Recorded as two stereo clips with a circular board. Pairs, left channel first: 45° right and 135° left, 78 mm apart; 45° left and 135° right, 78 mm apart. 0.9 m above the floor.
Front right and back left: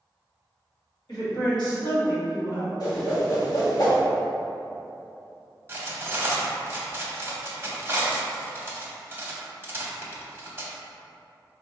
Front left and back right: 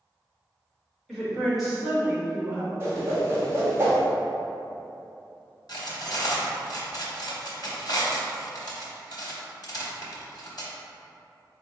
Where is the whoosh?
75° right, 1.0 m.